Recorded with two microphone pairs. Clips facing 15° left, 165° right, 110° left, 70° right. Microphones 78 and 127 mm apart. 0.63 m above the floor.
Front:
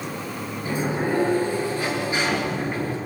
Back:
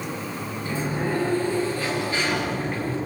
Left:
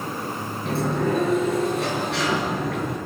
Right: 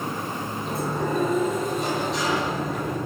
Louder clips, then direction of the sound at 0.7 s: Front 3 dB, left 4 dB; 85° left.